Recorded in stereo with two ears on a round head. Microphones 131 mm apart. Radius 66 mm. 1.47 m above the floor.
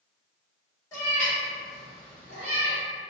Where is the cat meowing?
20° left (ahead or behind), 1.5 m; by 2.8 s 20° right (ahead or behind), 1.5 m.